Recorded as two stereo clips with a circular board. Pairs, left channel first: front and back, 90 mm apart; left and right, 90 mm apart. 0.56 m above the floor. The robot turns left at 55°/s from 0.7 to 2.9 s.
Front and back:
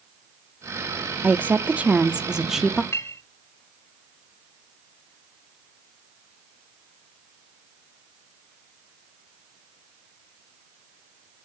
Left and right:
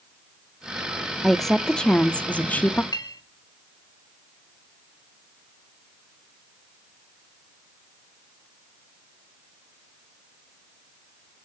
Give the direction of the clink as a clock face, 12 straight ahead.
10 o'clock.